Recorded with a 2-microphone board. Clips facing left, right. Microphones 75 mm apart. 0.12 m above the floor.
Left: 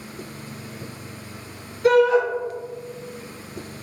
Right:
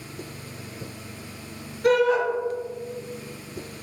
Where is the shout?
5° right (ahead or behind), 1.6 m.